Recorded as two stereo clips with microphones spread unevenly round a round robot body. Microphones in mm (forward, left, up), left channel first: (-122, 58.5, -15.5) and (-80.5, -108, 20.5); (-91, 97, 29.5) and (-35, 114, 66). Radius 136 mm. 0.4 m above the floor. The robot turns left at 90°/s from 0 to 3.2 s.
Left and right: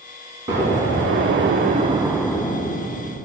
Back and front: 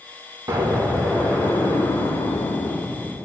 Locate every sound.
0.5 s an explosion: 10° right, 0.6 m; by 3.2 s 105° left, 0.6 m